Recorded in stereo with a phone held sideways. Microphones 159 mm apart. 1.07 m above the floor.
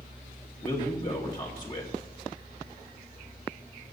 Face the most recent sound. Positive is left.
turn(degrees=25)  # may be behind; listen again after turning